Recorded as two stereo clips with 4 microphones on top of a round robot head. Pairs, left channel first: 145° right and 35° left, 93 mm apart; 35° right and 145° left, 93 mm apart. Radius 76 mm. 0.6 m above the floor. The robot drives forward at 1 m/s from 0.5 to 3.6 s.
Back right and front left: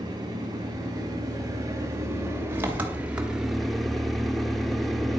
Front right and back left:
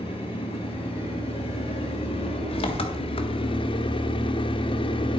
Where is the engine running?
15° right, 4 m; by 5.2 s 55° right, 1.5 m.